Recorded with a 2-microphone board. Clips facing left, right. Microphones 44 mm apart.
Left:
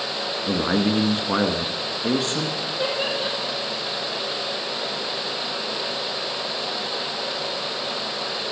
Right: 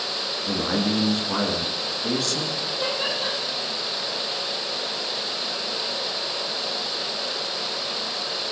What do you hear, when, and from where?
0.5 s a man speaking: 25° left (ahead or behind), 1.6 m
2.6 s laughter: 25° left (ahead or behind), 5.5 m